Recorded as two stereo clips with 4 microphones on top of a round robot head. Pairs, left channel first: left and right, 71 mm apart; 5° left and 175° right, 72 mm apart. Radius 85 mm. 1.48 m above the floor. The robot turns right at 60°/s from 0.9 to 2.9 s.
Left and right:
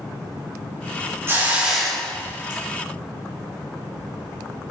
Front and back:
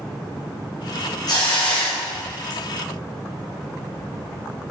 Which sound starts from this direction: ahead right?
A hiss, at 1.3 s.